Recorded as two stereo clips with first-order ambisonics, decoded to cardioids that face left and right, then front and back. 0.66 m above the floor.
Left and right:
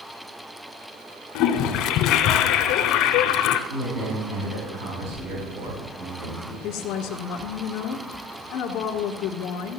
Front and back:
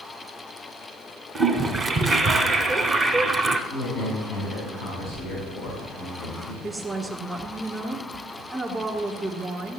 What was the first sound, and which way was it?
A toilet flushing, 110° left.